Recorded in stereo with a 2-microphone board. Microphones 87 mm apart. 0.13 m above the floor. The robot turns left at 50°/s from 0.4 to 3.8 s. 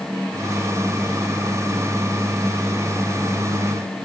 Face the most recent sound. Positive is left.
No sound to turn to.